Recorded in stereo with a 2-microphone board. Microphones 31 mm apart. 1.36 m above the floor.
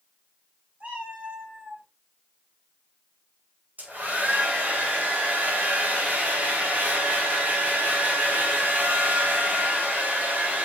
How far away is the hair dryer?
About 4 m.